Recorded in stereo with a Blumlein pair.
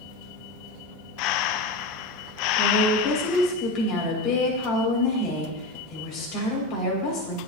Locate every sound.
1.2 s breathing: 40° left, 0.5 m
2.6 s a woman speaking: 35° left, 6.5 m